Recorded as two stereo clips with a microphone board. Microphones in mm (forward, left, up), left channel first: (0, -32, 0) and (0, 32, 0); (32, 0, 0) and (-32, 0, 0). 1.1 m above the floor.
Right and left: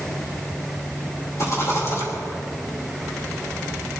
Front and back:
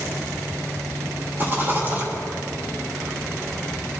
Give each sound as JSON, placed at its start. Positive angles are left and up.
{"t": 1.4, "sound": "a rattle", "azimuth_deg": -125, "distance_m": 3.5}